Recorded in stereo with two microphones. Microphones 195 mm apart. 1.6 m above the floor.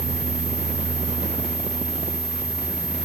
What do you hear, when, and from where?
Only background noise.